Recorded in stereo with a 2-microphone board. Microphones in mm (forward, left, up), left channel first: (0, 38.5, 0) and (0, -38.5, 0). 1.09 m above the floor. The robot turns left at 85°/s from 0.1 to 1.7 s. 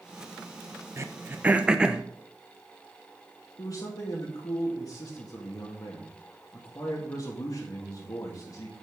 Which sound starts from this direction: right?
Throat clearing, at 1.0 s.